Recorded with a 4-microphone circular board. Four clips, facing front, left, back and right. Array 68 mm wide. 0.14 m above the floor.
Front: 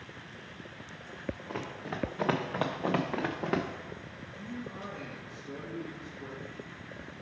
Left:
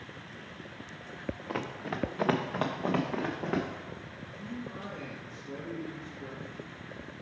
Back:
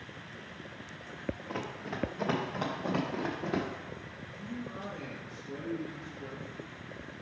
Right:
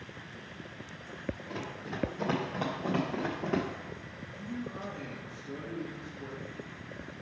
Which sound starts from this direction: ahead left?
A man speaking, at 4.3 s.